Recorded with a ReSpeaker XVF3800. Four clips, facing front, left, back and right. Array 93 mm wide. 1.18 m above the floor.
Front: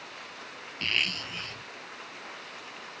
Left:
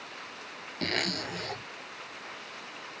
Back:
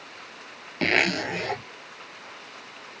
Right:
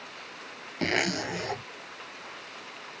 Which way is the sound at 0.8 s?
165° right.